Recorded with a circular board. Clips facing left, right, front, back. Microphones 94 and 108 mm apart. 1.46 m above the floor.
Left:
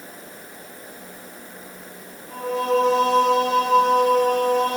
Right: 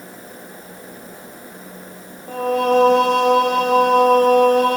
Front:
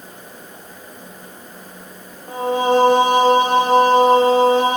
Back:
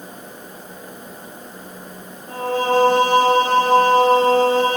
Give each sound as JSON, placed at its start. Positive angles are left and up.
{"t": 2.3, "sound": "singing", "azimuth_deg": -70, "distance_m": 4.0}